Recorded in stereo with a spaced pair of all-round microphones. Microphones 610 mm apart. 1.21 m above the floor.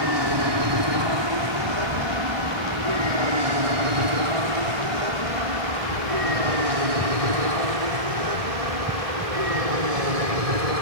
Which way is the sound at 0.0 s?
40° right (ahead or behind).